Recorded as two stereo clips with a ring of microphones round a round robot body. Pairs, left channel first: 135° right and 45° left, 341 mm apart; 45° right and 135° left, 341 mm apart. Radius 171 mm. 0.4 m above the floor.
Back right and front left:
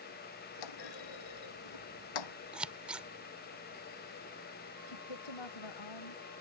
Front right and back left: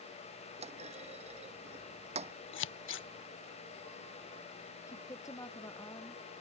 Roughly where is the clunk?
Behind right.